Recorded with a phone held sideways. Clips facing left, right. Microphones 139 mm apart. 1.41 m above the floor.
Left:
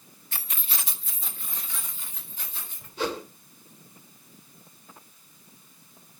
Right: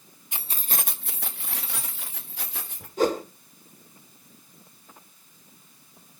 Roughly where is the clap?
No clap in this recording.